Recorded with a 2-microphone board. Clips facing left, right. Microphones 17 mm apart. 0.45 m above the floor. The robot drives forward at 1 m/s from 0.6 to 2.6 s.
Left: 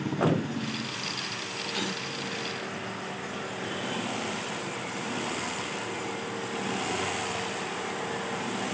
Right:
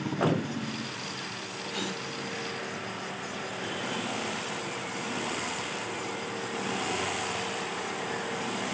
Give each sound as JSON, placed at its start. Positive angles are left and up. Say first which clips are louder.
{"t": 1.7, "sound": "a gasp", "louder": "left 1 dB", "side_deg": 5, "distance_m": 1.0}